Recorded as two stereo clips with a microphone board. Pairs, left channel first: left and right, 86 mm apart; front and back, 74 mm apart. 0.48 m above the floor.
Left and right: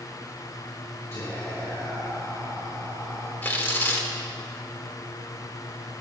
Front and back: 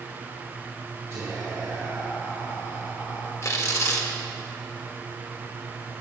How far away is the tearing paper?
About 0.7 m.